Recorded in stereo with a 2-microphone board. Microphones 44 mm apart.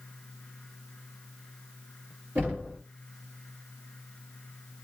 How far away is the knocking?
About 2.0 m.